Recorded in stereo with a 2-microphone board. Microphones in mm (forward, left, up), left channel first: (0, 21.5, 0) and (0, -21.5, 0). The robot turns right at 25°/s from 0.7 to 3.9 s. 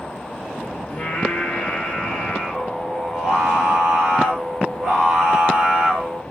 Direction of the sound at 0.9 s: 125° left.